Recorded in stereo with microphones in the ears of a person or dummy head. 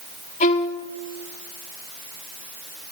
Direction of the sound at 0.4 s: 45° left (ahead or behind).